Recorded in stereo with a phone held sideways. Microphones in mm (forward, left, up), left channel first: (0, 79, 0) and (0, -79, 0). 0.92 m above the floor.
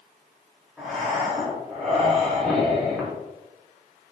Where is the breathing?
Centre (ahead or behind), 0.7 m.